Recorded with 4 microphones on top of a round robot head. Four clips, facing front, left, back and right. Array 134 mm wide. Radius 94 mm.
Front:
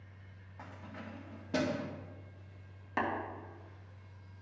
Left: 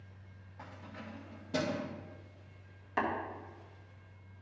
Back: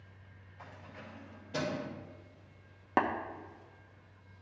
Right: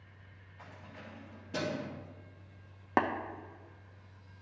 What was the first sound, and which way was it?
Keys jangling, 30° left.